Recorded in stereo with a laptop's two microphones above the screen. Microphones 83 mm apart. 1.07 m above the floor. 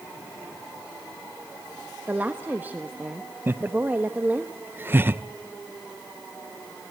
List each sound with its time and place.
2.1 s a woman speaking: 20° right (ahead or behind), 1.5 m
3.5 s laughter: 25° right (ahead or behind), 0.9 m